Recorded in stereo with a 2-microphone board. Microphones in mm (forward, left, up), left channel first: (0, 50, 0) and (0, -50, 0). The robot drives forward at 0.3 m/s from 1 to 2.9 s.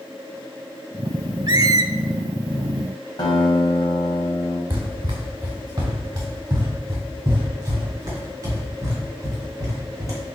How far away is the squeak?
About 0.6 m.